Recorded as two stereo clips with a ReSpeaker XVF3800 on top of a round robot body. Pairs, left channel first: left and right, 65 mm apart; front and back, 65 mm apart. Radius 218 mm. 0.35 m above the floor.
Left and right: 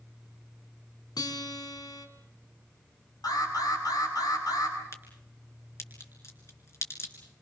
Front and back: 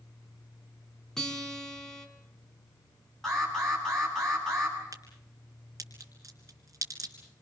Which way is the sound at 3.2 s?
85° left.